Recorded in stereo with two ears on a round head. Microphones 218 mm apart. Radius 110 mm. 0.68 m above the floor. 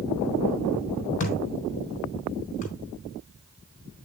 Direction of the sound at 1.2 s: 30° left (ahead or behind).